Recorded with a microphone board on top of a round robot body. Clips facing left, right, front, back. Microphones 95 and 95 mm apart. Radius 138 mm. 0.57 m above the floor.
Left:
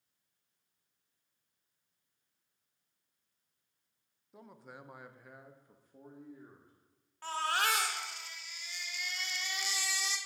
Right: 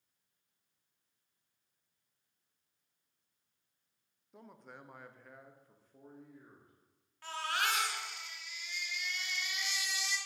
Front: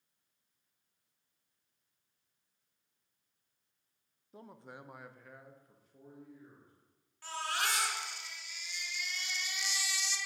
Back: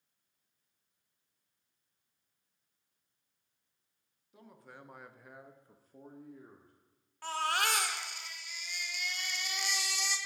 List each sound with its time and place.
4.3 s a man speaking: 5° left, 0.7 m; by 6.7 s 165° left, 1.1 m
7.2 s a baby crying: 145° left, 0.8 m